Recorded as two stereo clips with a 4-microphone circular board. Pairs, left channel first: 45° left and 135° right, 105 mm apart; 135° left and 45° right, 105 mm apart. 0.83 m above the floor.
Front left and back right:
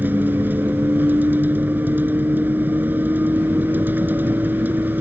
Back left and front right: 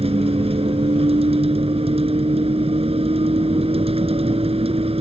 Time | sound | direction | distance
0.0 | a vehicle | 65° right | ?